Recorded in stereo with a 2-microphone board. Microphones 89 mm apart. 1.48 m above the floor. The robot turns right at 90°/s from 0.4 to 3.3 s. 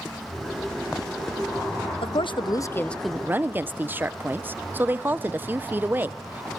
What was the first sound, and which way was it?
A woman speaking, 85° left.